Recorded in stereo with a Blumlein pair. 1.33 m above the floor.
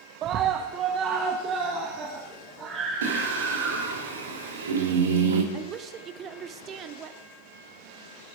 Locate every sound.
0.2 s a scream: 35° right, 0.8 m; by 4.0 s 30° right, 4 m
3.0 s singing: 65° right, 2.5 m
5.5 s a woman speaking: 30° right, 0.8 m